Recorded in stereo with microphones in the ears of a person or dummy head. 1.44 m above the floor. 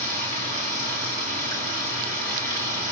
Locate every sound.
0.0 s running water: 40° right (ahead or behind), 2.5 m